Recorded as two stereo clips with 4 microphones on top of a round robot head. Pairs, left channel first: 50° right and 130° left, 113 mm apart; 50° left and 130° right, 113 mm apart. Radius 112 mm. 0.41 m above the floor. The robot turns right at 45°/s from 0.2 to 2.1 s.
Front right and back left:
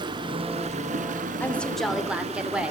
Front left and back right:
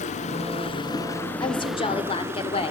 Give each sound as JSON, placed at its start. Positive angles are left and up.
{"t": 0.0, "sound": "running water", "azimuth_deg": 75, "distance_m": 0.9}
{"t": 1.4, "sound": "a woman speaking", "azimuth_deg": 20, "distance_m": 1.8}